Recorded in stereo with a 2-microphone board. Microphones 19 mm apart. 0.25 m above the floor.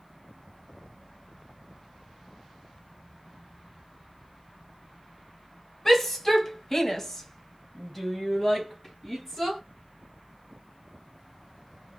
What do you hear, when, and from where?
5.8 s a shout: 15° left (ahead or behind), 1.6 m; by 9.6 s 10° left (ahead or behind), 2.5 m